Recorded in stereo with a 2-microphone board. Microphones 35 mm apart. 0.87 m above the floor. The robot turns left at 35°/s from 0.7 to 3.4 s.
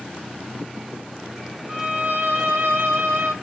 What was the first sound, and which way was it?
A violin, 50° right.